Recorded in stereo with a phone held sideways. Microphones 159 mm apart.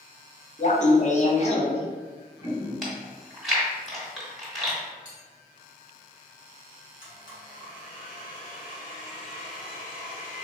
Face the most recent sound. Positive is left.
turn(degrees=65)  # may be behind; listen again after turning